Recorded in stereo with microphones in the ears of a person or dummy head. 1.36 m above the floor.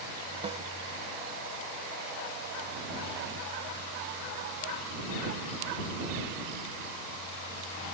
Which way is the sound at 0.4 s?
30° right (ahead or behind).